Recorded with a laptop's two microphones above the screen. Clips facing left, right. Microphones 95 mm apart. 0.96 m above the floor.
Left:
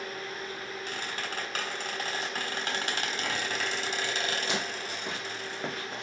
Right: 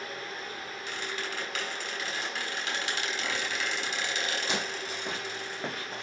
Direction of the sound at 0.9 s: 40° left (ahead or behind).